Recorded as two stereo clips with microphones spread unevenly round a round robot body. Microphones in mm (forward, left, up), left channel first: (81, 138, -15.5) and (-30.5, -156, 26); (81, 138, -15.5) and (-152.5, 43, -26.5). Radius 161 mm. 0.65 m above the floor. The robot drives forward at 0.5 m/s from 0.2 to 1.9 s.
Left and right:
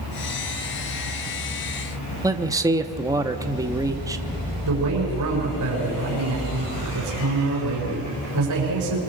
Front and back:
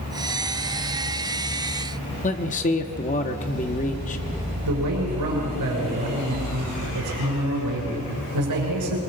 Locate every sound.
2.2 s a man speaking: 30° right, 0.8 m
4.7 s a man speaking: 155° right, 6.5 m